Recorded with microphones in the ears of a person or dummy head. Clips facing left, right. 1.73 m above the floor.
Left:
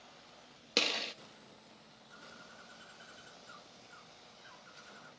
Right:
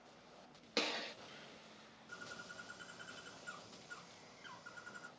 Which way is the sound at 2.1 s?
80° right.